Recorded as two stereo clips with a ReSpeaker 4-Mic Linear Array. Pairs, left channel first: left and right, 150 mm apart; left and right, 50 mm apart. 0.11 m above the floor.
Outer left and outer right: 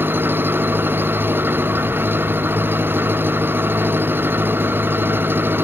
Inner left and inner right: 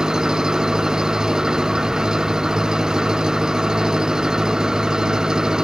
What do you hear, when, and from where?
0.0 s an engine running: 15° right (ahead or behind)